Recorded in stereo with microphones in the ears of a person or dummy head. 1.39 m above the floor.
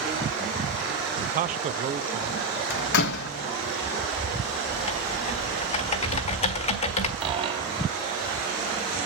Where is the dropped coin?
35° right (ahead or behind), 3 m.